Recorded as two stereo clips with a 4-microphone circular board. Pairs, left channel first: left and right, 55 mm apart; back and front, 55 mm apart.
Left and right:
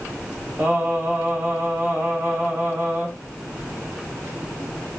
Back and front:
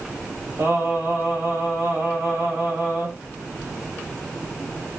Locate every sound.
0.6 s singing: 40° right, 2.5 m